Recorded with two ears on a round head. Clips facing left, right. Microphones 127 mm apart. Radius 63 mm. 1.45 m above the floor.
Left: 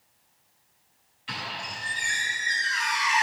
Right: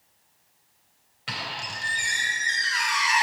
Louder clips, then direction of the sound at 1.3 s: Right 1 dB; 80° right.